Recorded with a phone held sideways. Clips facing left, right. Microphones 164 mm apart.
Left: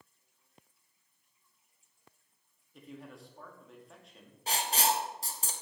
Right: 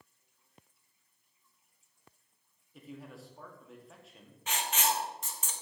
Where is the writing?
35° left (ahead or behind), 0.8 m.